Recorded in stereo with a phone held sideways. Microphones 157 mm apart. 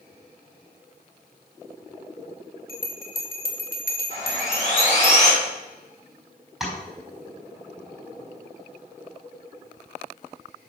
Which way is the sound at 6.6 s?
Centre (ahead or behind).